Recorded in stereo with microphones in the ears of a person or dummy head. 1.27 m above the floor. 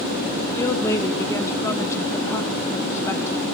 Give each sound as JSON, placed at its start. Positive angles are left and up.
{"t": 0.6, "sound": "a woman speaking", "side_deg": 15, "distance_m": 1.2}